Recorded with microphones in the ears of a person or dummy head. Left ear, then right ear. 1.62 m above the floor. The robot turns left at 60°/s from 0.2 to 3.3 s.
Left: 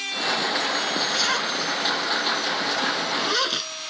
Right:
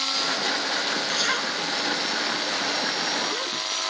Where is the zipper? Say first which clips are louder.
Left 1 dB; 15° right (ahead or behind); by 3.7 s 60° left (ahead or behind).